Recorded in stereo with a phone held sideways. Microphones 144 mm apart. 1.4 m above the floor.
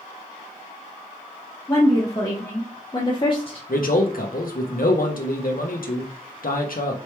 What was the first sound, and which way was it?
A woman speaking, 15° left (ahead or behind).